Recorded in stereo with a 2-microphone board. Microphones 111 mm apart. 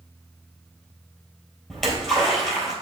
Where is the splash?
5° left (ahead or behind), 3 m.